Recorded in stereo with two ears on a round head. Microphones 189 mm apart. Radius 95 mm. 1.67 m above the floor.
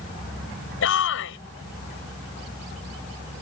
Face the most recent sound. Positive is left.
turn(degrees=65)  # may be behind; listen again after turning